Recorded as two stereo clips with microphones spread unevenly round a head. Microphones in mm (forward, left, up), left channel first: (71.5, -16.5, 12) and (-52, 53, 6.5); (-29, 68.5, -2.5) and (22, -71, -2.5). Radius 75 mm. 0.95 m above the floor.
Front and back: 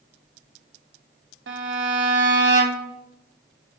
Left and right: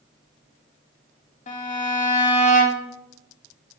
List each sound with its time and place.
1.5 s a violin: 150° left, 0.7 m